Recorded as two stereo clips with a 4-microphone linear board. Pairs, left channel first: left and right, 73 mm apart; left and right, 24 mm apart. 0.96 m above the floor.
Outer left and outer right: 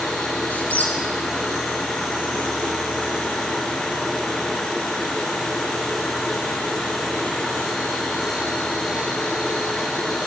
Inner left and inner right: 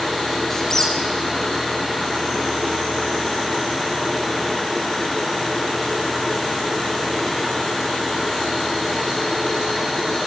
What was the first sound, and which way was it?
A squeak, 20° left (ahead or behind).